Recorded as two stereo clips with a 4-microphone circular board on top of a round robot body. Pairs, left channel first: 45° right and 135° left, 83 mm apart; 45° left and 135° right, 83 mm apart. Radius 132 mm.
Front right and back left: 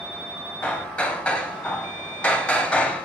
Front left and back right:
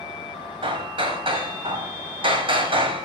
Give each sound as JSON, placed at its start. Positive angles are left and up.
{"t": 0.6, "sound": "hammering", "azimuth_deg": -120, "distance_m": 3.0}